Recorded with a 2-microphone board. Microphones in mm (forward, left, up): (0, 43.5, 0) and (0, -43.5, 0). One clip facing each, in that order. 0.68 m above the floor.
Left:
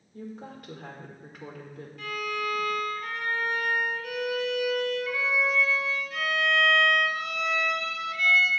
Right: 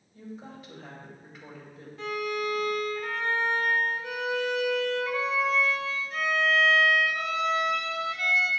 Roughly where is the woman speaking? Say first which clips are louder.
Left 2 dB; left.